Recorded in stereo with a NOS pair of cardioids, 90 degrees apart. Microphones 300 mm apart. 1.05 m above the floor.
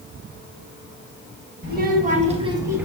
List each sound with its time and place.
1.6 s a child speaking: 35° right, 1.4 m; by 2.9 s 5° right, 0.8 m